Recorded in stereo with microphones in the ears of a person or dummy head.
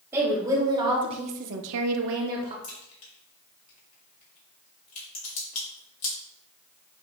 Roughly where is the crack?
Left.